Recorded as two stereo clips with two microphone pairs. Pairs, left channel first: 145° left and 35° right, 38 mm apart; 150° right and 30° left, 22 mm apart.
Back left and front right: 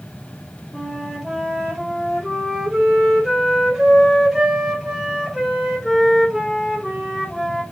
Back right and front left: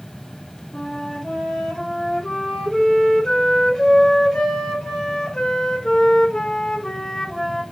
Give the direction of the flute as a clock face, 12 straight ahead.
4 o'clock.